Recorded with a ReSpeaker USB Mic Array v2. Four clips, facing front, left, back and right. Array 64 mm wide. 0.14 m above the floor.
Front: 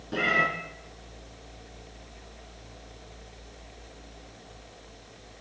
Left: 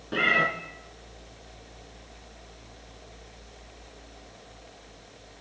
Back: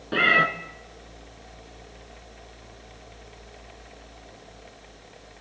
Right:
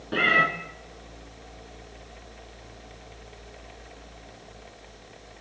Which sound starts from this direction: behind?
A cat meowing, at 0.1 s.